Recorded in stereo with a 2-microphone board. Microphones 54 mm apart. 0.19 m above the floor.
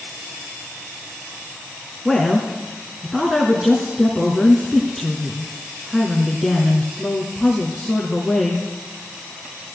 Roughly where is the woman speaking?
Centre.